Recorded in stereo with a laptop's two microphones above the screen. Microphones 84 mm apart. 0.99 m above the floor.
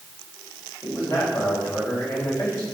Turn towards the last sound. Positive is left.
turn(degrees=50)  # may be behind; listen again after turning